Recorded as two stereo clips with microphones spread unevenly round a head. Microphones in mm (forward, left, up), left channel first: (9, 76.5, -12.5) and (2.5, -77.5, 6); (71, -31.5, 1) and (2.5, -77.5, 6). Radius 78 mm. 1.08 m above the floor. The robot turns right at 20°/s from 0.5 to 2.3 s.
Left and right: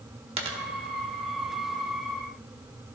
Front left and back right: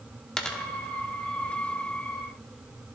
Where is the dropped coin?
45° right, 1.0 m.